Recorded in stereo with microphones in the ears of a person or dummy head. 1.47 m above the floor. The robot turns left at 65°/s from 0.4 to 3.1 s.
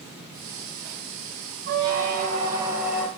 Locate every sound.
1.7 s a squeak: 100° right, 0.8 m; by 3.1 s 170° left, 0.8 m